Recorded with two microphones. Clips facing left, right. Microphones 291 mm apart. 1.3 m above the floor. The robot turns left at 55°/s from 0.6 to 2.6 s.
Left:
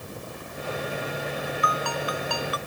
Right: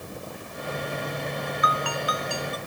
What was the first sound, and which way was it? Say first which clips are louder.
A ringtone: even; 145° left.